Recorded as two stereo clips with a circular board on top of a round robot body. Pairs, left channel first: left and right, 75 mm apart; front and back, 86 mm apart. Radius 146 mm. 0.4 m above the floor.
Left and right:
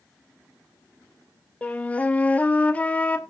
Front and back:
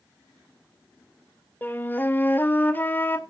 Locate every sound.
1.6 s a flute: 40° left, 1.2 m